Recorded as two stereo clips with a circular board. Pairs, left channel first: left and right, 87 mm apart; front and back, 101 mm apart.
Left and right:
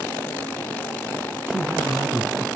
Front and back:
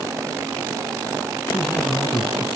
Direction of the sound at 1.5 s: 50° right.